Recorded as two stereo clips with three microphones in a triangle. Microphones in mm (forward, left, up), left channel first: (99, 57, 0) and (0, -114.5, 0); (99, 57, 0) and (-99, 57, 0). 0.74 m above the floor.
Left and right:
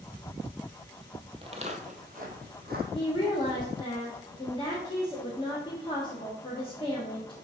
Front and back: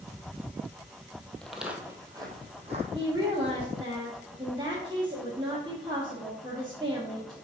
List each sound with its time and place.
1.4 s footsteps: 85° right, 0.8 m; by 2.8 s 135° right, 1.2 m
2.9 s a woman speaking: 120° left, 1.1 m